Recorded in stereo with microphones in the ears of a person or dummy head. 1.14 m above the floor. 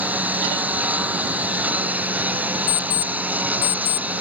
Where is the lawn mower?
5° right (ahead or behind).